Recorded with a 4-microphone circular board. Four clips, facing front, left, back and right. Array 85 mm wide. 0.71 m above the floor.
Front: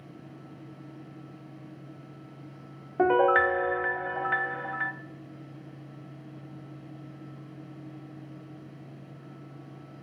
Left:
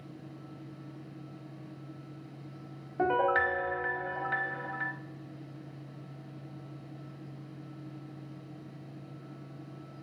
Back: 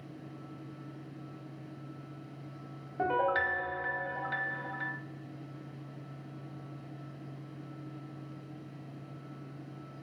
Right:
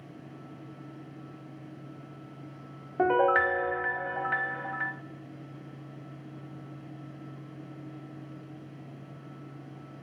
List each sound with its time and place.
3.0 s a piano: 30° right, 0.6 m